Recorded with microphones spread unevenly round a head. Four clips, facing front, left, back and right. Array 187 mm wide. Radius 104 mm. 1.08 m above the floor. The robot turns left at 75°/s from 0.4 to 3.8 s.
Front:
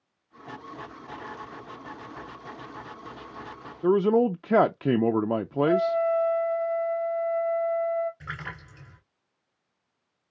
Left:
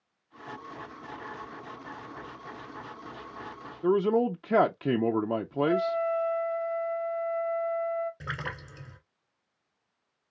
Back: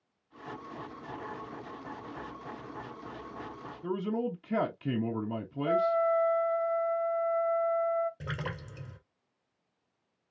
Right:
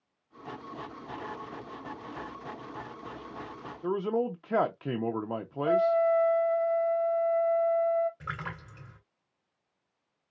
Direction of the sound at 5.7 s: 75° right.